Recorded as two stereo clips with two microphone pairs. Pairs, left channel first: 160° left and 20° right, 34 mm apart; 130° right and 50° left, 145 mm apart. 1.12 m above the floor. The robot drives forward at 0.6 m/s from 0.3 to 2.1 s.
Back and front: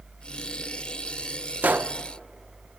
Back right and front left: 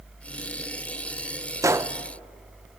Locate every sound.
1.6 s a gunshot: 15° right, 0.7 m; by 1.9 s 25° right, 0.5 m